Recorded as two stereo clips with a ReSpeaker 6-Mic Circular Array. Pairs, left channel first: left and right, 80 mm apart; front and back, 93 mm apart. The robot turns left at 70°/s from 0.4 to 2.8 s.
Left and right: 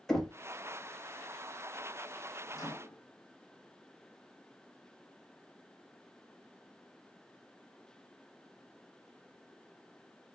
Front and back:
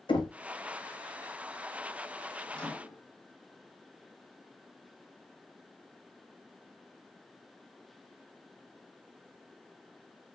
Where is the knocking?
5° left, 0.7 m.